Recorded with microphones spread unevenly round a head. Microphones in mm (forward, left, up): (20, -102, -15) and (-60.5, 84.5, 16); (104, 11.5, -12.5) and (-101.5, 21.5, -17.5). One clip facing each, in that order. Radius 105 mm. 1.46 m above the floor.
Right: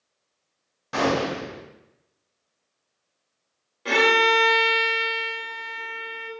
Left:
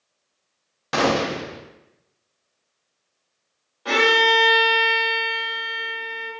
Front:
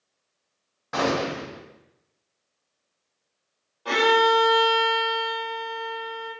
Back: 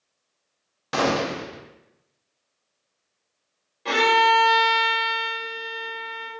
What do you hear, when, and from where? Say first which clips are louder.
0.9 s a gunshot: left 2 dB, back 1 dB; 130° left, 0.6 m
3.9 s a violin: left 1 dB, front 2 dB; 120° right, 1.1 m